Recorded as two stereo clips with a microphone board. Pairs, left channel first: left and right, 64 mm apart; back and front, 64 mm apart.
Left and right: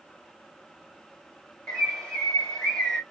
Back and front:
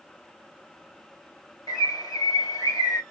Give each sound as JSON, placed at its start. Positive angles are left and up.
{"t": 1.7, "sound": "a bird", "azimuth_deg": 165, "distance_m": 1.4}